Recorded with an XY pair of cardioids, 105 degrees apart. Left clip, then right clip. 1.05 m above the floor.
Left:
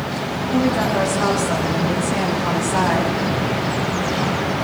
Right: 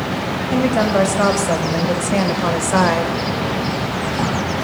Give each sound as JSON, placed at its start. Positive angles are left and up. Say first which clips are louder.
{"t": 0.5, "sound": "a woman speaking", "louder": "right 3 dB", "azimuth_deg": -55, "distance_m": 7.0}